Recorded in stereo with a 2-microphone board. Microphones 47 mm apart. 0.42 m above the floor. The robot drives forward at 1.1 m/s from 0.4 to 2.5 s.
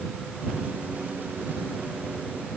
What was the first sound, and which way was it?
Only background noise.